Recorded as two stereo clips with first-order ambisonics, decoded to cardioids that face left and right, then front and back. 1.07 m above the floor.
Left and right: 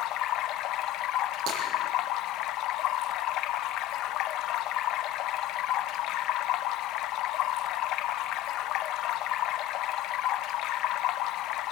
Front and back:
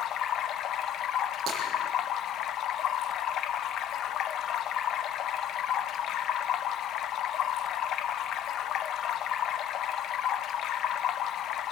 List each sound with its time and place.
0.0 s running water: 50° left, 0.8 m
1.5 s breaking glass: 120° right, 9 m